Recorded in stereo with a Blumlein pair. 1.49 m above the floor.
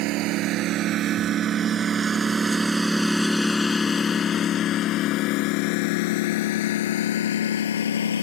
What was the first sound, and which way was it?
A lawn mower, 40° right.